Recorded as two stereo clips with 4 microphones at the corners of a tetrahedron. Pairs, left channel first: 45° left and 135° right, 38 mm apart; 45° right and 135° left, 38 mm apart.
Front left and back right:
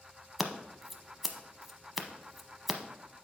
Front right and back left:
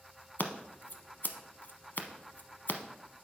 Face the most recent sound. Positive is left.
turn(degrees=-50)